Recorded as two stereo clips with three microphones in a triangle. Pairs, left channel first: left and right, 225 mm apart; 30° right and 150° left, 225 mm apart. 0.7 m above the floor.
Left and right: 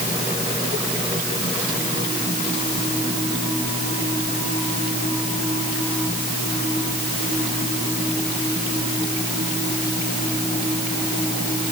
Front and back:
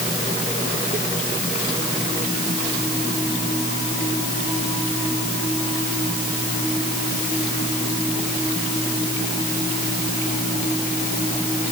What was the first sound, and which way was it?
Only background noise.